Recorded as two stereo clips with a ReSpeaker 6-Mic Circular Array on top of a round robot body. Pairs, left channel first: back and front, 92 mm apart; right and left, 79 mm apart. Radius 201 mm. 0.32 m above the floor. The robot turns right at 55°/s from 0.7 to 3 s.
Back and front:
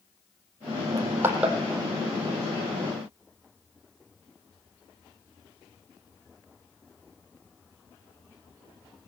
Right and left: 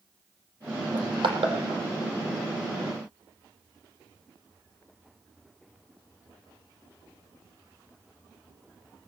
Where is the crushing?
55° left, 4 m; by 1.6 s 90° left, 4 m.